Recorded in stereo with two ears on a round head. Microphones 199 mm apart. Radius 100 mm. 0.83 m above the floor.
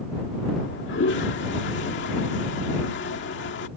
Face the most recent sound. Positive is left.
turn(degrees=55)  # may be behind; listen again after turning